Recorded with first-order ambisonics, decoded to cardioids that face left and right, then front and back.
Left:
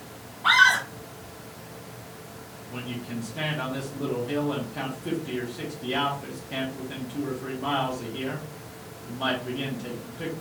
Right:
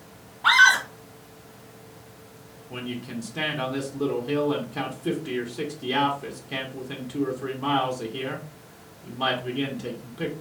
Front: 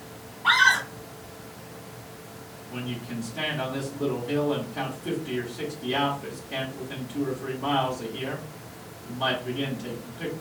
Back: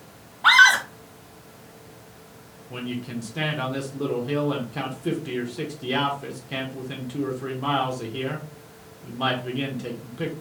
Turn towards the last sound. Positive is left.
turn(degrees=-145)